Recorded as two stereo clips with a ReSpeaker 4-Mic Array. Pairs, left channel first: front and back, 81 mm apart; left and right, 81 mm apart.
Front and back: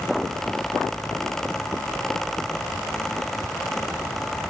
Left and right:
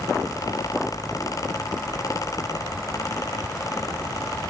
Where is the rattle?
I don't hear a rattle.